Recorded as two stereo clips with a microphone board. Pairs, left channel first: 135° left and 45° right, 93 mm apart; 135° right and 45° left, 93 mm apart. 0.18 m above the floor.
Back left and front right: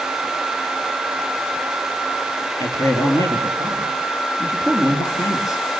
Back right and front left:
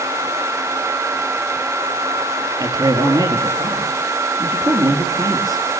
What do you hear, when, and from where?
2.6 s a man speaking: 85° left, 3 m